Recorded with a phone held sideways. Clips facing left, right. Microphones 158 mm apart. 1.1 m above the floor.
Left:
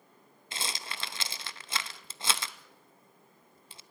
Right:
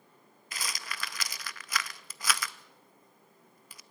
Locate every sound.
0.5 s a rattle: 25° left (ahead or behind), 0.6 m